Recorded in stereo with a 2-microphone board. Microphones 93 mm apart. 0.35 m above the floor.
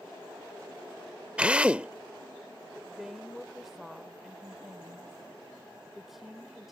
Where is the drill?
15° right (ahead or behind).